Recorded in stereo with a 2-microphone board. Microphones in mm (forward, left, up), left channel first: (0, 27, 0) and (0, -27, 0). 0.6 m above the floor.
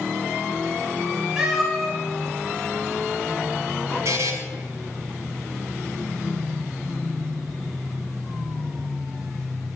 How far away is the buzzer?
About 1.5 m.